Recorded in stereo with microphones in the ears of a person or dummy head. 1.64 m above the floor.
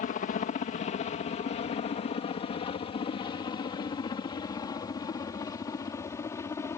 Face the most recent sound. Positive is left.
turn(degrees=20)  # may be behind; listen again after turning